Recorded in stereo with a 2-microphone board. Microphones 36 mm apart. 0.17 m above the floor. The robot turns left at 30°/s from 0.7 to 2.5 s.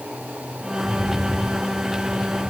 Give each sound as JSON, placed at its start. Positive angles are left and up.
{"t": 0.8, "sound": "a rattle", "azimuth_deg": -15, "distance_m": 7.5}